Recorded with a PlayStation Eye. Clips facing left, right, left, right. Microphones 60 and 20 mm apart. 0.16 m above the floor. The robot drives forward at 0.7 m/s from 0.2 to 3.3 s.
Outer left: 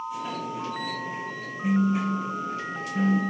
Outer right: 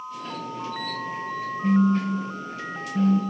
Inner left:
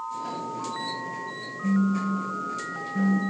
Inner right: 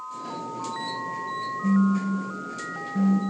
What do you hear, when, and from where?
1.6 s a phone buzzing: 30° right (ahead or behind), 0.9 m